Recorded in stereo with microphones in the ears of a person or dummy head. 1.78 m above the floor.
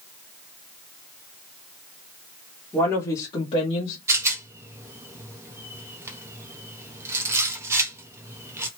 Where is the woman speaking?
10° left (ahead or behind), 1.0 m; by 4.0 s 45° left (ahead or behind), 1.0 m.